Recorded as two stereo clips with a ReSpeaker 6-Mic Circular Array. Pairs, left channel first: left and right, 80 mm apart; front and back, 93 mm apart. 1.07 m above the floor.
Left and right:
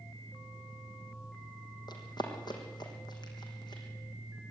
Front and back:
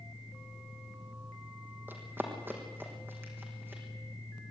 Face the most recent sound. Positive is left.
turn(degrees=115)